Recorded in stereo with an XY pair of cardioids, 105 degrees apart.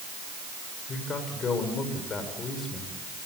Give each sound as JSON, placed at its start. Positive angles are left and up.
{"t": 0.9, "sound": "a man speaking", "azimuth_deg": 45, "distance_m": 6.0}